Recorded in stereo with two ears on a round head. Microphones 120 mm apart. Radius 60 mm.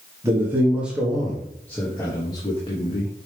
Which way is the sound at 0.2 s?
20° right (ahead or behind).